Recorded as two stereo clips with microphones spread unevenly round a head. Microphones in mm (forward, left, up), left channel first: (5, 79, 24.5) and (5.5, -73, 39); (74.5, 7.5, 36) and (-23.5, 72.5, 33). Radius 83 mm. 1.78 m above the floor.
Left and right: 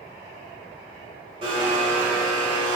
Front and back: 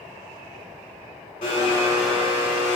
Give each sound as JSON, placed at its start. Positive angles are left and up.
{"t": 1.4, "sound": "a blender", "azimuth_deg": -35, "distance_m": 1.5}